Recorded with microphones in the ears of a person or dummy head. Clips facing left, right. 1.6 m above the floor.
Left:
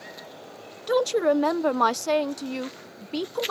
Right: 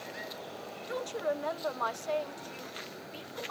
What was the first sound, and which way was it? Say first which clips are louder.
A woman speaking: left 13 dB; 85° left.